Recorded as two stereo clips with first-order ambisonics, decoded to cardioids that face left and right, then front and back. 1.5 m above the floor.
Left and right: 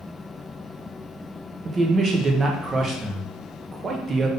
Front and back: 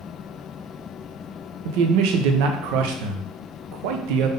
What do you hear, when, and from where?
1.6 s a man speaking: 165° right, 0.6 m